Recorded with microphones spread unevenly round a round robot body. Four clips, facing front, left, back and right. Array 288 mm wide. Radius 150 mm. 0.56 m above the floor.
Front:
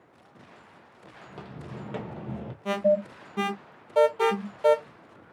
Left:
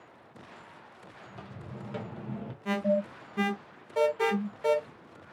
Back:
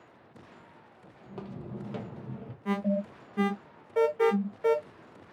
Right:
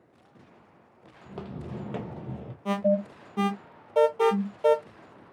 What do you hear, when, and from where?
1.2 s footsteps: 70° right, 0.9 m; by 2.5 s 15° left, 0.6 m
2.6 s an alarm: 60° right, 1.4 m